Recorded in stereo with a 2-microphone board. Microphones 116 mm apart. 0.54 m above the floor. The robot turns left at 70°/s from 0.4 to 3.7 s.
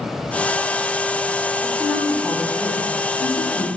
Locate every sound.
1.6 s a woman speaking: 160° right, 1.4 m; by 3.7 s 60° left, 1.4 m